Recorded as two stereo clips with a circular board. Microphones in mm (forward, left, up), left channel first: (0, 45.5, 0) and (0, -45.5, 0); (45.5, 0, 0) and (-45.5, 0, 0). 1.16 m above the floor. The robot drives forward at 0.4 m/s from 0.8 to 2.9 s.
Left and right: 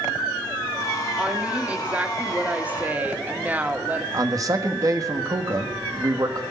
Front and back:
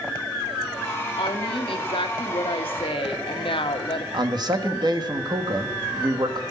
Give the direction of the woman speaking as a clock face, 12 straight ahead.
12 o'clock.